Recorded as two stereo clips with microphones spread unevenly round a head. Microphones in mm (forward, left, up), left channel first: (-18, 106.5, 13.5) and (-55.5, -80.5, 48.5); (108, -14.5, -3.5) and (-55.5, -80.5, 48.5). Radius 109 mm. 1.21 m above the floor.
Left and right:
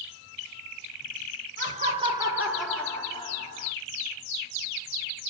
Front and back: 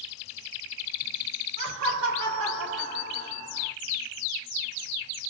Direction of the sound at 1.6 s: 150° right.